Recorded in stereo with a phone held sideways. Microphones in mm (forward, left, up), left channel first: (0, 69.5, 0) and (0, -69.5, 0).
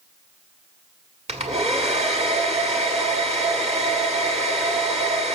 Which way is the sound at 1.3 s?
50° right (ahead or behind).